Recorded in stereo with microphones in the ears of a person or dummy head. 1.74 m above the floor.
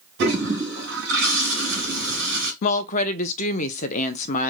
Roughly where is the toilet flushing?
Right.